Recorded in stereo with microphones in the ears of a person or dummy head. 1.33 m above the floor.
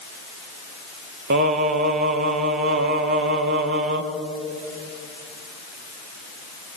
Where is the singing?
50° right (ahead or behind), 1.0 m.